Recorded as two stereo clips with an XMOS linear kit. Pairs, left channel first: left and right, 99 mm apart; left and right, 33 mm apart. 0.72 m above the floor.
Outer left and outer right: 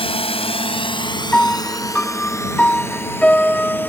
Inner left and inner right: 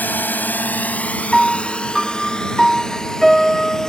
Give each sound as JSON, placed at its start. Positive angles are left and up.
{"t": 0.0, "sound": "a drone", "side_deg": 75}
{"t": 1.3, "sound": "a piano", "side_deg": 10}